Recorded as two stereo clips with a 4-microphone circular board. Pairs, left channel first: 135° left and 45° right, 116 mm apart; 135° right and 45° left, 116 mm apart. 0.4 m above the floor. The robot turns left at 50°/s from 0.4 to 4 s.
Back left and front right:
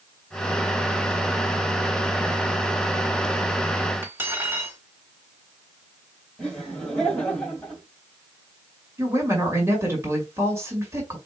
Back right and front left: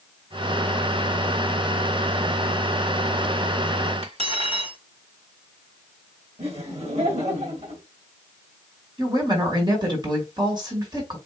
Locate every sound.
4.0 s cutlery clinking: 25° left, 1.3 m
6.4 s laughter: 50° left, 1.8 m
9.0 s a woman speaking: 15° left, 1.9 m